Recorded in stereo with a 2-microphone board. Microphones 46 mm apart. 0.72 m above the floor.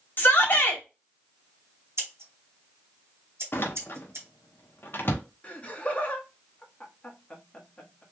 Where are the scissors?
75° right (ahead or behind), 1.6 m.